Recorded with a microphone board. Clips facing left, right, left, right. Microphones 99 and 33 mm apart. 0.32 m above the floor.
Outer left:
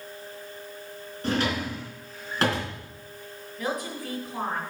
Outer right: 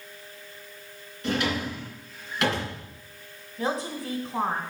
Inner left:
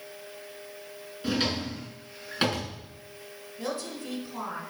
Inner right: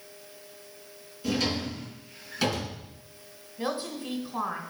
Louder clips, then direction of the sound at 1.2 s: Outer left 1 dB, even; 40° left (ahead or behind).